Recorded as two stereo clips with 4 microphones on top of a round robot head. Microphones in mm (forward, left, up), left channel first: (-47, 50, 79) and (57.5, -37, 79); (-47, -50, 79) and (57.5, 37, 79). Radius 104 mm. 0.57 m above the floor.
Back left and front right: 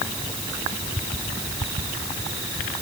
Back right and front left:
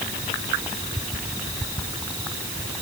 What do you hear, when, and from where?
Only background noise.